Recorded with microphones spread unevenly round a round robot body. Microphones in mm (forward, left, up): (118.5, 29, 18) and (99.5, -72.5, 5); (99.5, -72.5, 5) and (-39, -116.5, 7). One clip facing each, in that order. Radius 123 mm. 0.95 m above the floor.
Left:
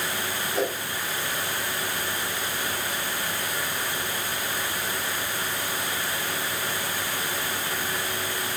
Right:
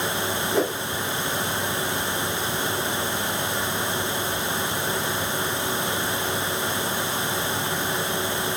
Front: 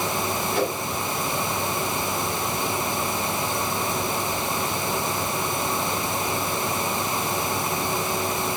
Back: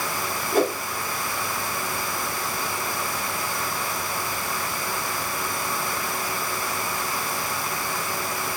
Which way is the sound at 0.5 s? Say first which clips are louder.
Right 3 dB, back 5 dB; 120° right.